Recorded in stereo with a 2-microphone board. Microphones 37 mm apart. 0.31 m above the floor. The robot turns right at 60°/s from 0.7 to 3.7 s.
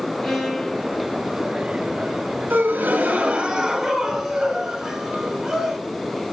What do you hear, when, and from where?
0.2 s a violin: 5° right (ahead or behind), 1.4 m; by 1.2 s 35° right (ahead or behind), 1.4 m
2.5 s a gasp: 75° right, 2 m; by 5.8 s 5° right, 2 m